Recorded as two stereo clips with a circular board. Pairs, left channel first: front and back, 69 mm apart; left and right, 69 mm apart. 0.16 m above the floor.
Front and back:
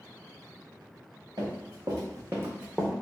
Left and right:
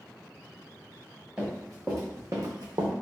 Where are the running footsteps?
170° right, 1.5 m; by 2.9 s 90° right, 0.8 m.